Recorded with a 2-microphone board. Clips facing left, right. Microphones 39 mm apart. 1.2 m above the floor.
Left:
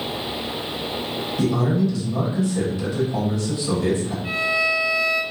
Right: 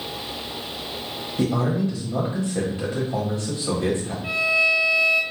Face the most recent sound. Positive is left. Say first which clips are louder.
# right 2 dB
turn(degrees=-55)  # may be behind; listen again after turning